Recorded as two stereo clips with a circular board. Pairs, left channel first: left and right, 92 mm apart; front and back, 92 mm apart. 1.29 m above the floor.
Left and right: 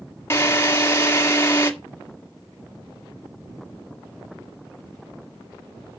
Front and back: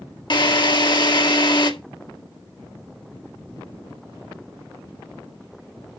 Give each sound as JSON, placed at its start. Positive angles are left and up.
{"t": 0.3, "sound": "a drill", "azimuth_deg": 30, "distance_m": 1.8}